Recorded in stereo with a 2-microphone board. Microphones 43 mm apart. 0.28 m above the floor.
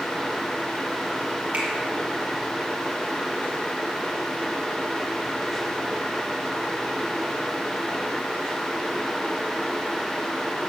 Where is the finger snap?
30° right (ahead or behind), 4.5 m.